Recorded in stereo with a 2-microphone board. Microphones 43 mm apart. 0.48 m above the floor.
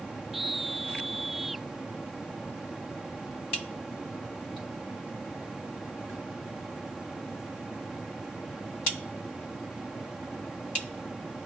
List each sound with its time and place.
0.3 s a scream: centre (ahead or behind)